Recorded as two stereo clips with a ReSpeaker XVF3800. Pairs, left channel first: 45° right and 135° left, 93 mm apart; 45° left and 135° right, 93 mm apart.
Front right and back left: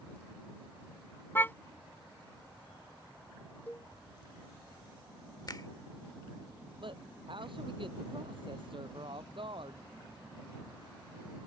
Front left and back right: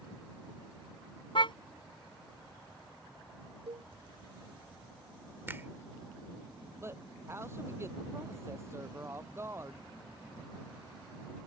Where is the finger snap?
75° right.